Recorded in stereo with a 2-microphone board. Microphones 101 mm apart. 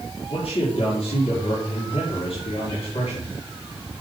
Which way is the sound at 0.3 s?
75° left (ahead or behind).